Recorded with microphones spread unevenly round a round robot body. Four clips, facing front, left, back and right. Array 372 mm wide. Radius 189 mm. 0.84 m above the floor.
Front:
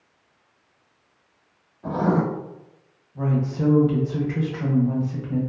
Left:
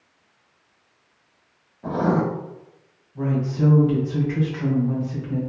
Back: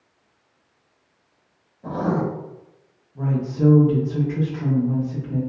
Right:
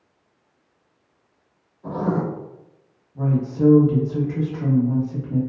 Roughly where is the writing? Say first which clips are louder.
Left 2 dB, front 2 dB; left.